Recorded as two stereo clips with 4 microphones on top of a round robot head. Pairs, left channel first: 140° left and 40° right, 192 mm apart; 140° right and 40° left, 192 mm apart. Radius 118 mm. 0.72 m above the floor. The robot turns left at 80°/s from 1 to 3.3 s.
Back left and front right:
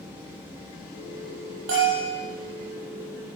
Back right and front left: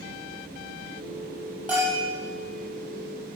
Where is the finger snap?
I don't hear a finger snap.